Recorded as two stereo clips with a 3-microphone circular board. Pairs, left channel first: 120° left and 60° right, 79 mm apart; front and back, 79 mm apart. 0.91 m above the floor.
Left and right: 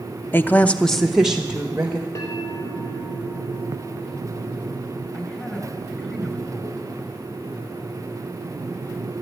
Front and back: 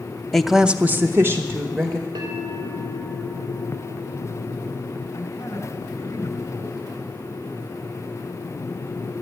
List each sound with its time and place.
0.3 s a woman speaking: 80° left, 0.7 m; by 2.0 s 130° right, 1.5 m
2.1 s a bell: 165° left, 3.5 m
5.1 s a man speaking: 50° left, 4 m